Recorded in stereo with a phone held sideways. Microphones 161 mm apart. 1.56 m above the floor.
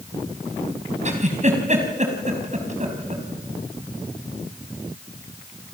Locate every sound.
1.1 s a giggle: 45° right (ahead or behind), 4.5 m